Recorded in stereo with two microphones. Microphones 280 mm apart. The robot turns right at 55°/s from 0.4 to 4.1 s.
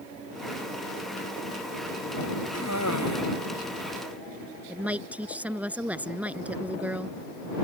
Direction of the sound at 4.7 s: 5° right (ahead or behind).